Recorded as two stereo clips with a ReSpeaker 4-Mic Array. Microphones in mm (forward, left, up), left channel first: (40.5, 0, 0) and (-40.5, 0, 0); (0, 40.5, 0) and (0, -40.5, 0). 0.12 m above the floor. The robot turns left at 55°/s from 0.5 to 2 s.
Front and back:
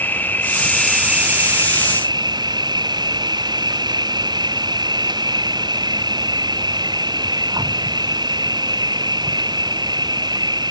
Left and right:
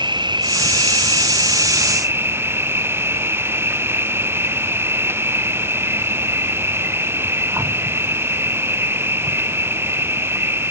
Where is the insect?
70° right; by 10.7 s 150° right.